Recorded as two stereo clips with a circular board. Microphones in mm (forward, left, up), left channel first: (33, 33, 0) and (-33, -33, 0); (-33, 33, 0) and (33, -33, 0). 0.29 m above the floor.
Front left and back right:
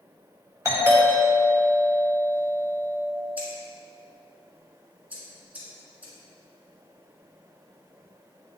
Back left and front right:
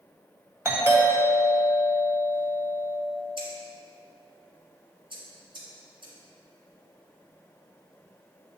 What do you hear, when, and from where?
0.7 s a doorbell: 90° right, 1.7 m
3.4 s scissors: 65° right, 2 m